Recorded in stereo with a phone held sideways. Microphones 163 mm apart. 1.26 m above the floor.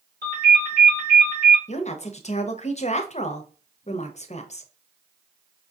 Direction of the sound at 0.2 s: 75° right (ahead or behind).